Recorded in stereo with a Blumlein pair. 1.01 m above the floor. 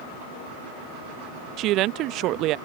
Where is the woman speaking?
35° right.